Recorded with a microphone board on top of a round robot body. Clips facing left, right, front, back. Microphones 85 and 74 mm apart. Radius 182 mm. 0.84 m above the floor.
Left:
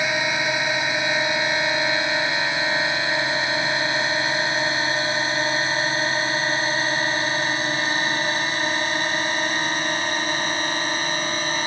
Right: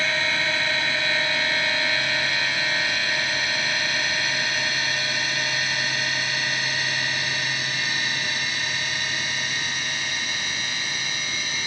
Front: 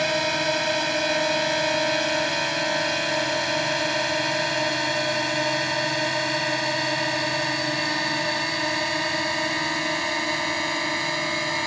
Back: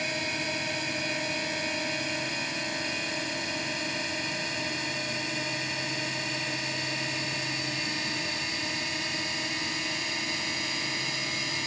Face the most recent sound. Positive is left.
turn(degrees=40)